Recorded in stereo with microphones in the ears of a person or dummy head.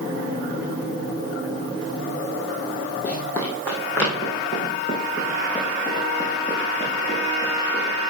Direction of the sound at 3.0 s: 15° left (ahead or behind).